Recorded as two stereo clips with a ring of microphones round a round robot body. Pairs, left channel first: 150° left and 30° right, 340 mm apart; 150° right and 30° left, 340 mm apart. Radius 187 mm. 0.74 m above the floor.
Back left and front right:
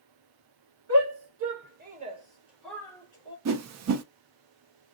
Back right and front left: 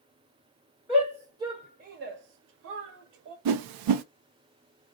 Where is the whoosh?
15° left, 0.5 m.